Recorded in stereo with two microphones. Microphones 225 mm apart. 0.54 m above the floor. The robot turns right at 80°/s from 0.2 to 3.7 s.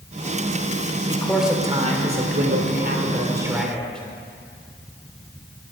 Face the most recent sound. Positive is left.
turn(degrees=5)